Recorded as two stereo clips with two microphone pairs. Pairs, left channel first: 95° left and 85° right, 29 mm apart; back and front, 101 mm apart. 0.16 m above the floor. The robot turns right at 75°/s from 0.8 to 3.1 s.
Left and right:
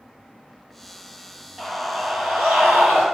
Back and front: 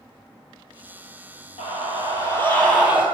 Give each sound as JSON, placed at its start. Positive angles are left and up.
{"t": 1.6, "sound": "a scream", "azimuth_deg": -175, "distance_m": 3.5}